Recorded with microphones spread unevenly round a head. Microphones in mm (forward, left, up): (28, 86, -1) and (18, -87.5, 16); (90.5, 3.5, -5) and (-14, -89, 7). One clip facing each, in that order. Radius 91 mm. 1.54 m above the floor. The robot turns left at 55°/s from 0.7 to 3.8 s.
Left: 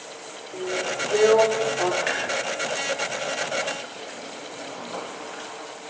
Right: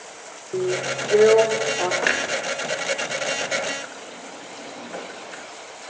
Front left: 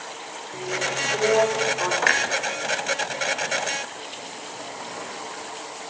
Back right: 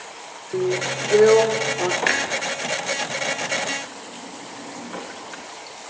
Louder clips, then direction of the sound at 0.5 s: Right 5 dB, back right 7 dB; 125° right.